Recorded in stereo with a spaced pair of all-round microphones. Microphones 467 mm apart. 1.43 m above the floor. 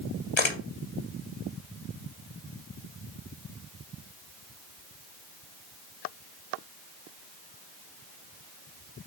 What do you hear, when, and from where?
0.4 s a camera shutter: 70° left (ahead or behind), 0.9 m